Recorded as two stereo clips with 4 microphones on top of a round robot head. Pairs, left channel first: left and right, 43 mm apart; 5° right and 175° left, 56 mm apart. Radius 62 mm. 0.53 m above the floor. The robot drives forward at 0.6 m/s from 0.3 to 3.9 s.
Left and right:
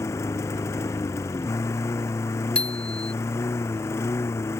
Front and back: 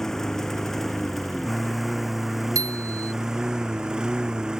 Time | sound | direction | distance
0.0 | a lawn mower | 80° left | ?
2.5 | a bicycle bell | 155° left | ?